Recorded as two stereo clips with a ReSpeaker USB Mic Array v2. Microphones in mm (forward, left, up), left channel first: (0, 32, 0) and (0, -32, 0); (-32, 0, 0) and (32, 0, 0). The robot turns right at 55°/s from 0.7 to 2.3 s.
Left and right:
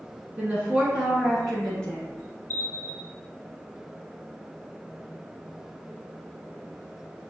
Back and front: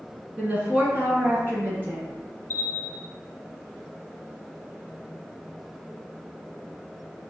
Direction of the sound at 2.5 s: 135° left.